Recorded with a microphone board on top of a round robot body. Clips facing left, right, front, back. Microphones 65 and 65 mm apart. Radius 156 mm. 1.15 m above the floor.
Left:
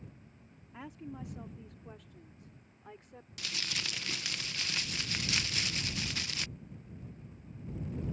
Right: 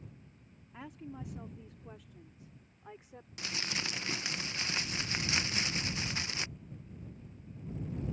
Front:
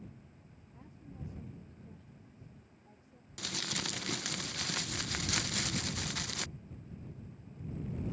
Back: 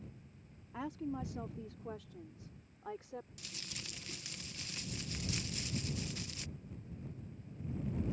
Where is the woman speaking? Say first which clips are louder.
Left 1 dB, back 12 dB; straight behind; by 3.3 s 175° right.